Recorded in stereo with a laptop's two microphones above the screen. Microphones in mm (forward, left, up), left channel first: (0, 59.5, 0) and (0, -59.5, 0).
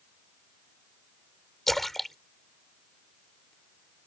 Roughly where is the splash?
Centre.